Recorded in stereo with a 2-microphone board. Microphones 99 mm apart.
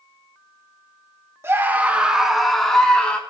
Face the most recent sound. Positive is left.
turn(degrees=10)  # may be behind; listen again after turning